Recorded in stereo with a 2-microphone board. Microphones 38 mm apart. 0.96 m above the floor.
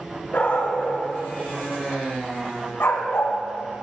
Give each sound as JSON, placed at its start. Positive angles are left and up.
{"t": 0.3, "sound": "a dog barking", "side_deg": 55, "distance_m": 3.5}